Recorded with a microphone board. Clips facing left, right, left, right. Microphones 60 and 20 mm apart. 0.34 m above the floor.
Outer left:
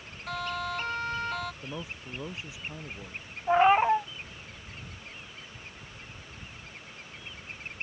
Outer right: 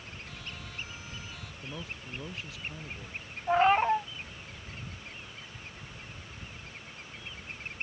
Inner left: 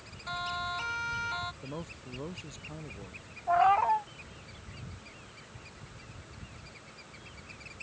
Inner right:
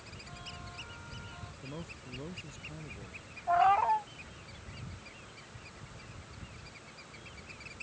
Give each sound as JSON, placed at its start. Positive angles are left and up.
{"t": 0.3, "sound": "a siren", "side_deg": 65}
{"t": 1.6, "sound": "a man speaking", "side_deg": 20}
{"t": 3.5, "sound": "a cat meowing", "side_deg": 10}